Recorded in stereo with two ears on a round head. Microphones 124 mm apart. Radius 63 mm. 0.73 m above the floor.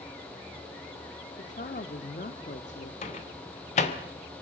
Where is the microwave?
50° left (ahead or behind), 2 m.